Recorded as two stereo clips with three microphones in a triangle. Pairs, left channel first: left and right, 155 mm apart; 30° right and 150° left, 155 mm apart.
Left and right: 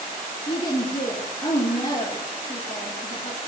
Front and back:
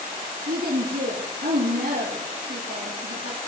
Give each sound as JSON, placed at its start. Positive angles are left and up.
{"t": 0.5, "sound": "a woman speaking", "azimuth_deg": 145, "distance_m": 4.5}